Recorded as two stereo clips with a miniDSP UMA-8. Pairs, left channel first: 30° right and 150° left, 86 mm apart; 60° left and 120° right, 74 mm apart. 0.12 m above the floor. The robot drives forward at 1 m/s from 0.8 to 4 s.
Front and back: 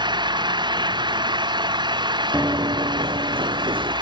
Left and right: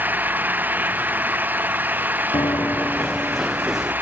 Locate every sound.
0.0 s an engine running: 175° left
2.3 s running footsteps: 75° left; by 3.9 s 155° left